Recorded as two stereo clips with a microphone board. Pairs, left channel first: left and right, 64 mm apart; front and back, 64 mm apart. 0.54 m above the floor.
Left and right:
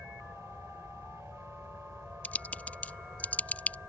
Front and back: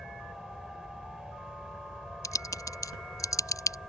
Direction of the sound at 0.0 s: 100° right.